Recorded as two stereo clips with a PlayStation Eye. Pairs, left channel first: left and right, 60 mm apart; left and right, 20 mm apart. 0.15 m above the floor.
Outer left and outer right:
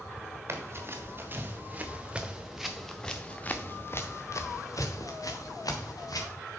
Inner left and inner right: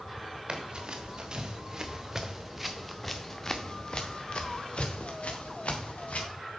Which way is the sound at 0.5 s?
45° right (ahead or behind).